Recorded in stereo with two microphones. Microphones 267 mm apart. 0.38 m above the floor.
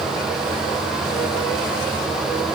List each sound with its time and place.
Only background noise.